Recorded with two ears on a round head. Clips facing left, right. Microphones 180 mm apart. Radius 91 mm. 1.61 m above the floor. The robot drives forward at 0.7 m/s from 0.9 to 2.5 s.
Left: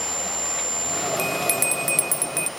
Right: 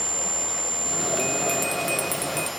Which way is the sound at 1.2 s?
20° left (ahead or behind).